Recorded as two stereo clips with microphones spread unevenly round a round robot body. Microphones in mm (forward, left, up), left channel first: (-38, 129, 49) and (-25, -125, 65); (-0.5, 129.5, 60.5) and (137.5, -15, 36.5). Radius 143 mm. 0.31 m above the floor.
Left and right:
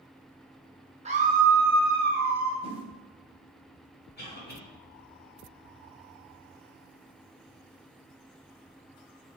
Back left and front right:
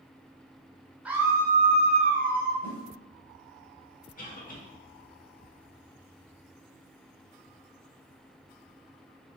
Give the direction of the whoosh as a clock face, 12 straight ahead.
5 o'clock.